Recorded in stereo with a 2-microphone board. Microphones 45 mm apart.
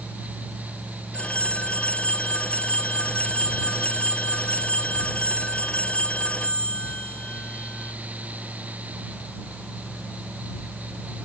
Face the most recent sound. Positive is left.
turn(degrees=30)  # may be behind; listen again after turning